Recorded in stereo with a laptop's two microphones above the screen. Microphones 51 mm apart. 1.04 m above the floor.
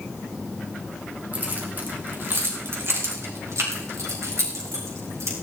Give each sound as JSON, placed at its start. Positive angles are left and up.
{"t": 1.3, "sound": "keys jangling", "side_deg": -35, "distance_m": 3.5}